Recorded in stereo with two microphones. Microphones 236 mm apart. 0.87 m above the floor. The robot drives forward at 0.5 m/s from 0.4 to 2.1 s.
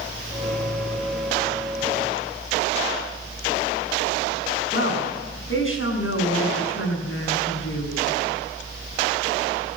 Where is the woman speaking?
55° left (ahead or behind), 6.5 m.